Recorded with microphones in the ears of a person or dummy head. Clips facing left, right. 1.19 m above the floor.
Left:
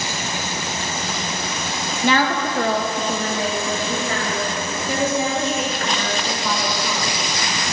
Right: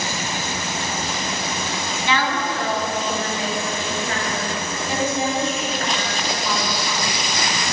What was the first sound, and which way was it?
A woman speaking, 30° left (ahead or behind).